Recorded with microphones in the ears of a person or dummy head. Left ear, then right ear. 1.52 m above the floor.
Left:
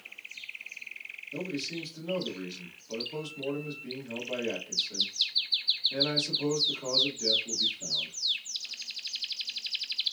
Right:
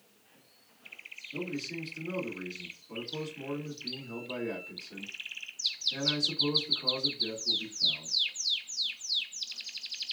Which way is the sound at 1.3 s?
40° left (ahead or behind).